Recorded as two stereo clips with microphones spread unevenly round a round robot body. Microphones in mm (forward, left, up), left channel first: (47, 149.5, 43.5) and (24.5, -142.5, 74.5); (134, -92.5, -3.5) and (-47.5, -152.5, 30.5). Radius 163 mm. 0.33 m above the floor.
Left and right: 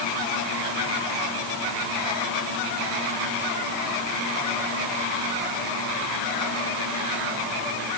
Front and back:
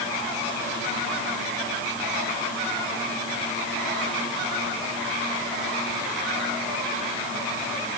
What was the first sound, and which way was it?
Only background noise.